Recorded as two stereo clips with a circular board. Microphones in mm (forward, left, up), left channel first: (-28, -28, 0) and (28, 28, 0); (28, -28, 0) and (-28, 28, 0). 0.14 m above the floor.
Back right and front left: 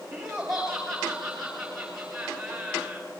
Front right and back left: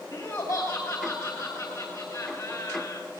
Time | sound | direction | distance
0.1 | laughter | 35° right | 3 m